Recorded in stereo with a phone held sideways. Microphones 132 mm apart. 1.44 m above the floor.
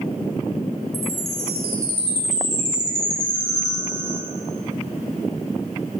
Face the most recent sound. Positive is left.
turn(degrees=60)  # may be behind; listen again after turning